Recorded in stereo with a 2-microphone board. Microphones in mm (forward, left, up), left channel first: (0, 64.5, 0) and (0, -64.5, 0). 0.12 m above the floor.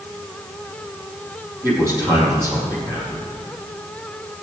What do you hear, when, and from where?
1.6 s a man speaking: 20° right (ahead or behind), 4.5 m